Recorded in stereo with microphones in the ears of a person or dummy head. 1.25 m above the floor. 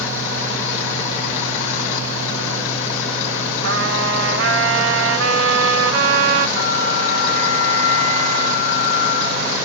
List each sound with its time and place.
3.6 s a trumpet: 65° right (ahead or behind), 0.6 m
6.6 s a bell: 60° left (ahead or behind), 0.8 m